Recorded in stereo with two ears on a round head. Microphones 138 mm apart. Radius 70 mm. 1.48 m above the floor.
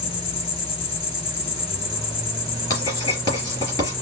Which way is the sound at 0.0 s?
40° left (ahead or behind).